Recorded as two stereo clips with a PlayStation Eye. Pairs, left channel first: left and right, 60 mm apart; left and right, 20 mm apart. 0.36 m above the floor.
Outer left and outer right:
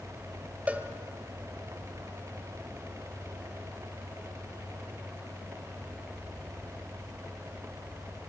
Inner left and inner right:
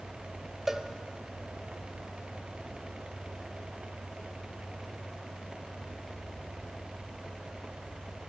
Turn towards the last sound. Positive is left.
turn(degrees=-20)  # may be behind; listen again after turning